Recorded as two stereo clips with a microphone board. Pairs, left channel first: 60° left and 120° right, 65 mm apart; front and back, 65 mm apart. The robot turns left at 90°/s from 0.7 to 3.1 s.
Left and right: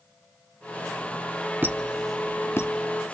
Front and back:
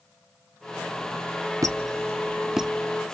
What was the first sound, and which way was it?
A squeak, 175° right.